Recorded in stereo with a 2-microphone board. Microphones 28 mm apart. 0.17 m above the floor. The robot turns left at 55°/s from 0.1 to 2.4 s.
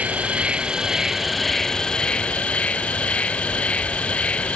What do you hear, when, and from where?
0.0 s an insect: 110° right; by 4.5 s 125° left